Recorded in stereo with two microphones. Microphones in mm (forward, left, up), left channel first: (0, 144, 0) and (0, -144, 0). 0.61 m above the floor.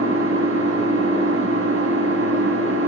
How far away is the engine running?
About 2 m.